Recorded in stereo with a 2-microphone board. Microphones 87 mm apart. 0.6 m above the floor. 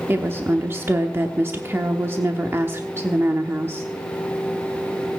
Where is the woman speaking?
30° right (ahead or behind), 1.0 m.